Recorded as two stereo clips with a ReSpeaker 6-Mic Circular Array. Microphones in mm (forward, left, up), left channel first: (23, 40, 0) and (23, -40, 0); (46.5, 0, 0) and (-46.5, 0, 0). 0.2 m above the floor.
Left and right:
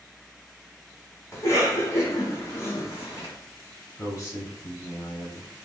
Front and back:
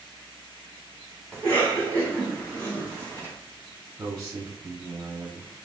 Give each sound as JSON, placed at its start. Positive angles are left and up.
{"t": 1.3, "sound": "a cough", "azimuth_deg": 65, "distance_m": 1.4}
{"t": 4.0, "sound": "a man speaking", "azimuth_deg": 95, "distance_m": 1.2}